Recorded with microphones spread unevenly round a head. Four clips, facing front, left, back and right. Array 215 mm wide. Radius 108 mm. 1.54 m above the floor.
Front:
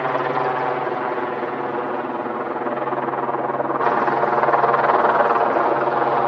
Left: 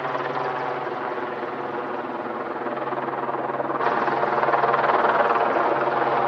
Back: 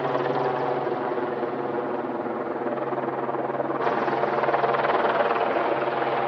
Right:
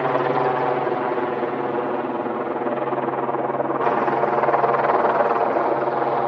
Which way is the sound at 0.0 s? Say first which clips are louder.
Right 6 dB, front 3 dB; 90° right.